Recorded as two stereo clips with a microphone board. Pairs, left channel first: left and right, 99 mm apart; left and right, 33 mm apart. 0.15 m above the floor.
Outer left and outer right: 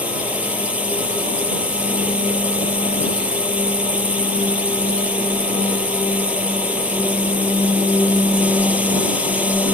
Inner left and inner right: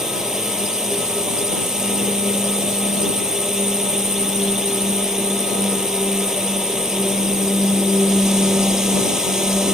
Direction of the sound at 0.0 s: 15° right (ahead or behind).